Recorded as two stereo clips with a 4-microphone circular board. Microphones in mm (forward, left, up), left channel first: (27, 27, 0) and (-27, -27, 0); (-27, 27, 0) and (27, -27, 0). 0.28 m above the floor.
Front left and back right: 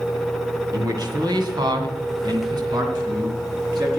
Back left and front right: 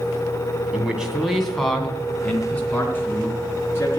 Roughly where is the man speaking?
Behind right.